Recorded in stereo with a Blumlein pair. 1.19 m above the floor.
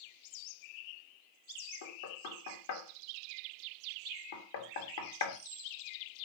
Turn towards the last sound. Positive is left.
turn(degrees=60)